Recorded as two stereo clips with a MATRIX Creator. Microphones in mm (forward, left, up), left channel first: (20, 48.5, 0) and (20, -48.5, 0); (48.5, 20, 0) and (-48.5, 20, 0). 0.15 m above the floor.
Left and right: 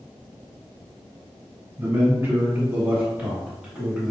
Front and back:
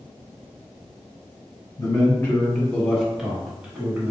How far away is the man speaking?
About 1.6 m.